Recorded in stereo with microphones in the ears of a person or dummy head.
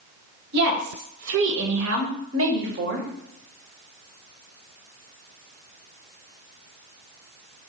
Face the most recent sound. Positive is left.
turn(degrees=-40)  # may be behind; listen again after turning